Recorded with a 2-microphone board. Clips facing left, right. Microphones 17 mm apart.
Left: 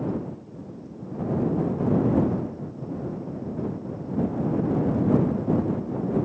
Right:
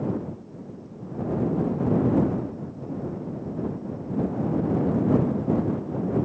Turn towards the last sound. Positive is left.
No sound to turn to.